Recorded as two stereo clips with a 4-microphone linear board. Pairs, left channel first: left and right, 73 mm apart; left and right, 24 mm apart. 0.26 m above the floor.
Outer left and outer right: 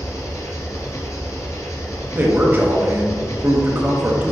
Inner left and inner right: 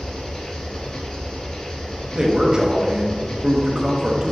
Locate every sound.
0.0 s an engine running: 40° left (ahead or behind), 1.4 m
2.1 s a man speaking: 30° right (ahead or behind), 1.0 m